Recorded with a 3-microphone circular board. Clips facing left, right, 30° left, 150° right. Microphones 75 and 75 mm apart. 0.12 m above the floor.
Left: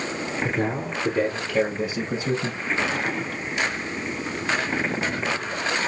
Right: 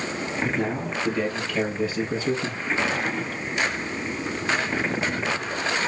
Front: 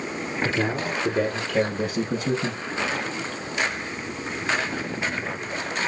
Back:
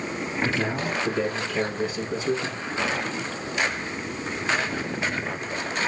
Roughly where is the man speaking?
Ahead left.